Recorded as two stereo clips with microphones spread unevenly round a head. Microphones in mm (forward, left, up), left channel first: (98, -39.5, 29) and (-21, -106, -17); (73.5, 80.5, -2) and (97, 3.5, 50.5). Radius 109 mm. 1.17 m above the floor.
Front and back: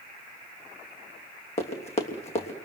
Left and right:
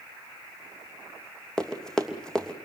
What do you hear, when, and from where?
1.6 s running footsteps: 10° left, 3 m